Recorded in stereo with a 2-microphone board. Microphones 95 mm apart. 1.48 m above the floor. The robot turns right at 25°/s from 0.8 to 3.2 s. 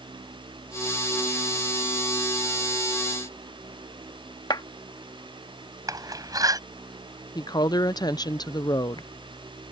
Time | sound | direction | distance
4.5 | a clap | 50° left (ahead or behind) | ?
5.9 | a door slam | 35° right (ahead or behind) | ?
7.3 | a woman speaking | 40° left (ahead or behind) | ?